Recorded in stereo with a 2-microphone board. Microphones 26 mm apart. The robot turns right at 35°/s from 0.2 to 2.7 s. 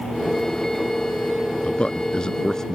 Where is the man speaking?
120° left; by 2.8 s 160° left.